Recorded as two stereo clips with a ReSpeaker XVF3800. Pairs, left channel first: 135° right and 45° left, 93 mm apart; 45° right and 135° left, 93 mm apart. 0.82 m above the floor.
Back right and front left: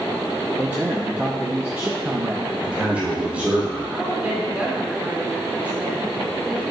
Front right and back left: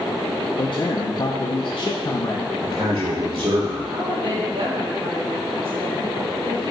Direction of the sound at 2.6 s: 120° left.